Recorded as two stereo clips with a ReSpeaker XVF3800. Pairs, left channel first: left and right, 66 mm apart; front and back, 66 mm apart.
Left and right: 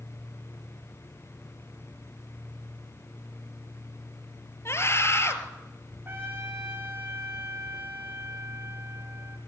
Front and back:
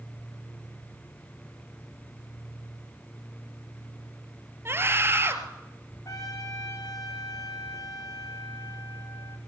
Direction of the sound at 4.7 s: 130° left.